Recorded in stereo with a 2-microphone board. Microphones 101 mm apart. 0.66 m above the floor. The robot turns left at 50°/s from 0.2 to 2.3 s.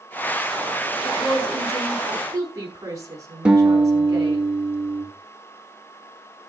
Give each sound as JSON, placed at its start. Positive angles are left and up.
{"t": 1.0, "sound": "a woman speaking", "azimuth_deg": 30, "distance_m": 5.0}
{"t": 3.5, "sound": "a guitar", "side_deg": -10, "distance_m": 3.0}